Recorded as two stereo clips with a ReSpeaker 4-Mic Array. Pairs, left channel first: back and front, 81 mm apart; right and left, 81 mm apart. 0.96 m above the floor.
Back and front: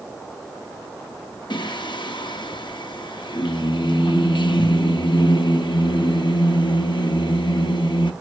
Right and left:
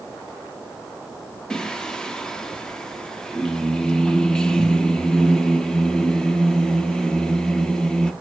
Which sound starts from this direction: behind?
Singing, at 1.5 s.